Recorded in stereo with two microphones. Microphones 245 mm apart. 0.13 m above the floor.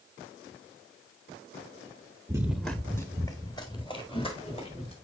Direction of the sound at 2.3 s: 15° right (ahead or behind).